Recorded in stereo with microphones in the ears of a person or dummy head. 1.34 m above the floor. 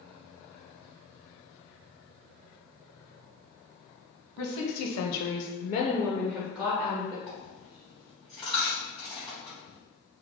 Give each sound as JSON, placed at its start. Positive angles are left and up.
{"t": 4.4, "sound": "a woman speaking", "side_deg": 70, "distance_m": 1.0}
{"t": 7.3, "sound": "a dropped coin", "side_deg": 0, "distance_m": 1.4}